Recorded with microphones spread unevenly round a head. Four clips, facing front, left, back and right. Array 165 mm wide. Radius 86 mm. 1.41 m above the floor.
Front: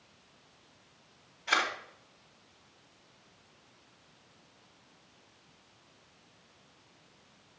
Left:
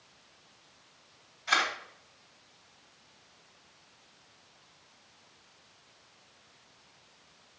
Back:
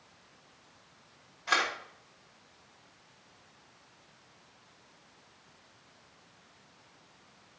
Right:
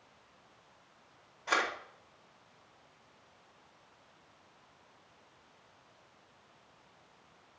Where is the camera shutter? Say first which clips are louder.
Left 2 dB, back 1 dB; 120° right, 1.5 m.